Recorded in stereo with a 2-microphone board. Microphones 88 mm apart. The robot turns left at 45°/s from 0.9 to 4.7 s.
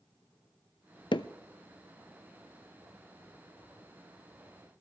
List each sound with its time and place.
1.1 s hammering: 70° left (ahead or behind), 0.6 m; by 1.3 s 65° left (ahead or behind), 0.6 m